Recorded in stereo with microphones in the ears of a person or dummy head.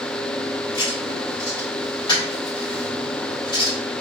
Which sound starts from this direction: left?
Writing, at 0.7 s.